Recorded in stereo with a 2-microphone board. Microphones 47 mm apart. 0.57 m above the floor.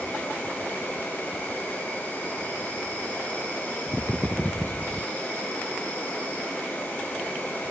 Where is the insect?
45° left (ahead or behind), 1.1 m.